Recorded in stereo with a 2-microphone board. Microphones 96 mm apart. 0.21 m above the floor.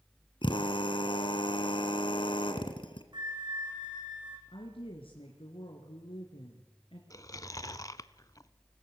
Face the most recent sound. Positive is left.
turn(degrees=35)  # may be behind; listen again after turning